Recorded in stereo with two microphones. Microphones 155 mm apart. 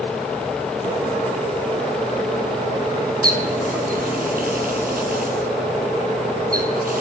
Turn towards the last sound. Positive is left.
turn(degrees=-70)  # may be behind; listen again after turning